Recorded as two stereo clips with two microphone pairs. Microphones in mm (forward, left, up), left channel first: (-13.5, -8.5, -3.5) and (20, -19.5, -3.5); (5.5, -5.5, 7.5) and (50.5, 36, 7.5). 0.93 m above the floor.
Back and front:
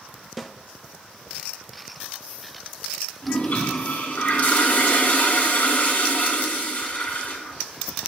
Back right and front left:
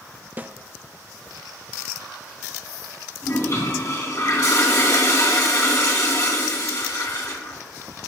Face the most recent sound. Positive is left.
turn(degrees=-160)